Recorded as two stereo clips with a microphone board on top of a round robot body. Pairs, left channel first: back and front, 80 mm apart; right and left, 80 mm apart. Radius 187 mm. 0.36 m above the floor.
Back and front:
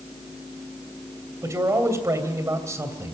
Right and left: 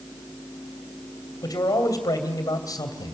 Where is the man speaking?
50° right, 3 m.